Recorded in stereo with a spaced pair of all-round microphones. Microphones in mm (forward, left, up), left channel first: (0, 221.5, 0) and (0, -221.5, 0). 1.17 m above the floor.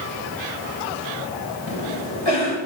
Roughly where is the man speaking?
I don't hear a man speaking.